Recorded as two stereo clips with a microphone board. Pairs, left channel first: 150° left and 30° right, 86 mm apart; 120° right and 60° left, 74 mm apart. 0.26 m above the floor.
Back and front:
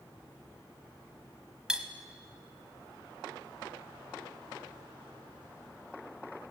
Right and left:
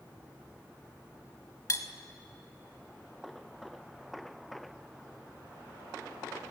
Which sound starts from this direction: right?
Cutlery clinking, at 1.7 s.